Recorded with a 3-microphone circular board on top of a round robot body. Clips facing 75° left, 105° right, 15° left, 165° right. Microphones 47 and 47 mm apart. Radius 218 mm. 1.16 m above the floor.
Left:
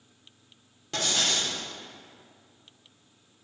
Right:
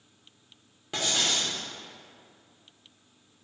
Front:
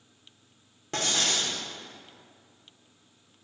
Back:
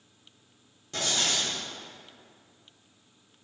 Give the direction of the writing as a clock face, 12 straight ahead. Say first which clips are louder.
Even, front 1 dB; 1 o'clock.